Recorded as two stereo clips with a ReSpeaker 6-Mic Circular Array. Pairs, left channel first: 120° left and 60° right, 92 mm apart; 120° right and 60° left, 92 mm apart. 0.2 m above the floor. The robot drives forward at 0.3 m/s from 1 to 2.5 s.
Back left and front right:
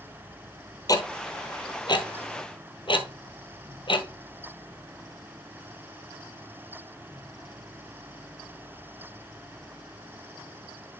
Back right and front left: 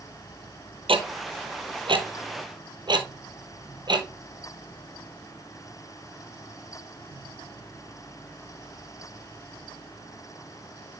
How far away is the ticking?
About 1.2 m.